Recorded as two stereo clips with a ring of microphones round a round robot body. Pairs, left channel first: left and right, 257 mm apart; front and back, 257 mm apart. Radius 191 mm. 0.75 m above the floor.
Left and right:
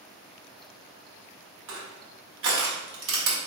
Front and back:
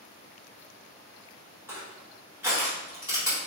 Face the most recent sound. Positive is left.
turn(degrees=-100)